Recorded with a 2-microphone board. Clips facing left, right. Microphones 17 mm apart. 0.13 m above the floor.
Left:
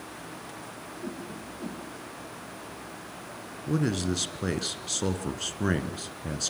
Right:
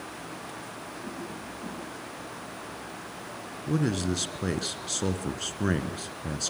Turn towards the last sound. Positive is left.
turn(degrees=5)  # may be behind; listen again after turning